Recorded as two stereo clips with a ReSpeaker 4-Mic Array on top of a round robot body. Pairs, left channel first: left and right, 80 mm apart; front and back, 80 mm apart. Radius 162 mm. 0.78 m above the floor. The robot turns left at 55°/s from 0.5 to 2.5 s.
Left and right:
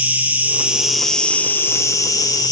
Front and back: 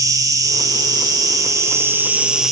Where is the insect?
155° right, 2.5 m; by 2.5 s 95° left, 2.5 m.